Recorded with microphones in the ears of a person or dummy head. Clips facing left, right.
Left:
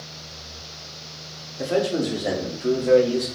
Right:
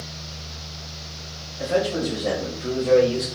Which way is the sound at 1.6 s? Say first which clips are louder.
Even; 40° left (ahead or behind).